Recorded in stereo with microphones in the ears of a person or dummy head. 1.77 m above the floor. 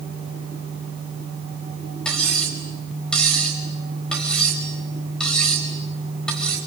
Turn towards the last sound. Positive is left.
turn(degrees=10)  # may be behind; listen again after turning